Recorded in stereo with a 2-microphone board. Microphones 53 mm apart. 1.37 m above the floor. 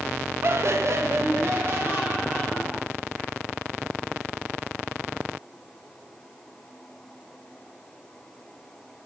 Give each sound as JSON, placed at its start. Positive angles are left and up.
{"t": 0.4, "sound": "laughter", "side_deg": -45, "distance_m": 0.7}